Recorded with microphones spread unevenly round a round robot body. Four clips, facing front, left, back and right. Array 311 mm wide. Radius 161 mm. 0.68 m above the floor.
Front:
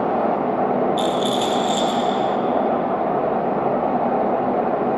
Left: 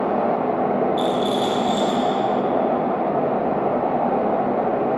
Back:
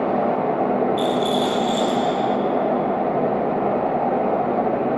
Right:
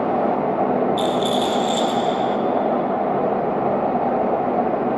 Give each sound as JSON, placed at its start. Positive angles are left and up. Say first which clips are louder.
{"t": 1.0, "sound": "a rattle", "louder": "right 1 dB, even", "azimuth_deg": -55, "distance_m": 6.5}